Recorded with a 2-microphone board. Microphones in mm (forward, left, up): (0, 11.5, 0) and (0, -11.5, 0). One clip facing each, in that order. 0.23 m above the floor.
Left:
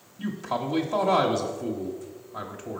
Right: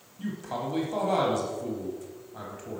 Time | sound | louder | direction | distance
0.2 | a man speaking | left 4 dB | 20° left (ahead or behind) | 1.0 m